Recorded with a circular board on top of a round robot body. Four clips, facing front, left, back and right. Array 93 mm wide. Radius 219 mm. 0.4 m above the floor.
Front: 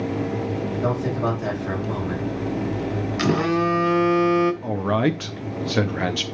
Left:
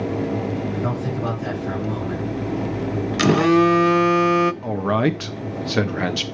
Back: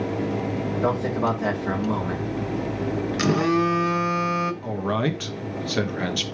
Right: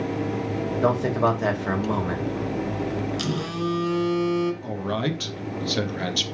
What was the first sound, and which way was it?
A man speaking, 105° right.